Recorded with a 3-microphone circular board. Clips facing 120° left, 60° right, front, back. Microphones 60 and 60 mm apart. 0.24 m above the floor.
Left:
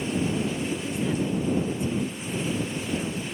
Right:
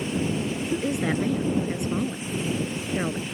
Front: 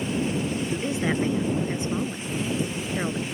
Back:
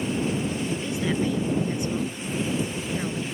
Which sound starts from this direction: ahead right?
A woman speaking, at 0.7 s.